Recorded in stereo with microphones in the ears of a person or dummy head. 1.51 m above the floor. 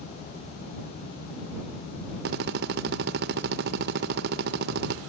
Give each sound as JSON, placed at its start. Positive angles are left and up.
{"t": 2.2, "sound": "a drill", "side_deg": -45}